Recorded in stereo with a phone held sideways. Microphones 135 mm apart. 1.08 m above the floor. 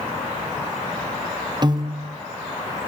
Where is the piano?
35° right (ahead or behind), 0.5 m.